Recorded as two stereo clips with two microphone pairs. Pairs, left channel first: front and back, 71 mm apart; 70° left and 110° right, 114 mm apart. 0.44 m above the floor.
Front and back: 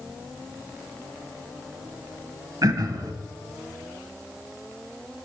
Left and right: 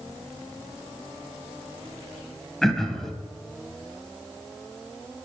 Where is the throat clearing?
155° left, 0.7 m.